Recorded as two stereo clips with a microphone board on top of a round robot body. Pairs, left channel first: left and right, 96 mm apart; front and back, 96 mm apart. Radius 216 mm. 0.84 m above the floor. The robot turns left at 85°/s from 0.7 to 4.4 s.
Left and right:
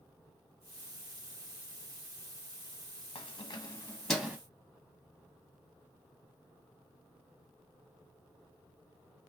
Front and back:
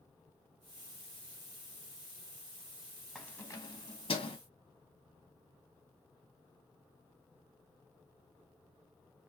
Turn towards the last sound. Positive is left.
turn(degrees=-25)